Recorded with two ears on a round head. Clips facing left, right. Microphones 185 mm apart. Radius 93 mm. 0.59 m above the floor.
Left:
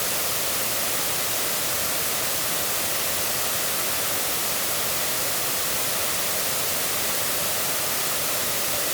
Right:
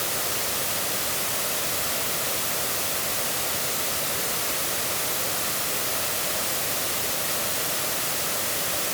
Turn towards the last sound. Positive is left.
No sound to turn to.